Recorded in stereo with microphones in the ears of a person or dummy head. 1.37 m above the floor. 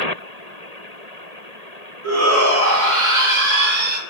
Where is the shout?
85° right, 3 m; by 4.0 s 50° right (ahead or behind), 2 m.